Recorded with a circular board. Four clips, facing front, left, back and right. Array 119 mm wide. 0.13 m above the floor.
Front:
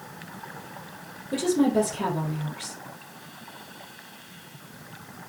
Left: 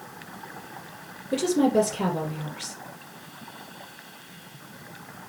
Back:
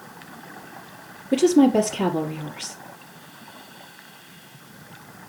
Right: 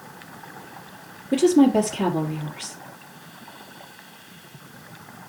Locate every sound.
1.3 s a woman speaking: 150° right, 2.0 m